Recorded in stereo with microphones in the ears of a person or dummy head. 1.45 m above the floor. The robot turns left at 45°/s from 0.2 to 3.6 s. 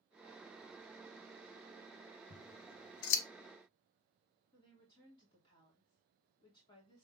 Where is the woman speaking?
25° left (ahead or behind), 2.5 m.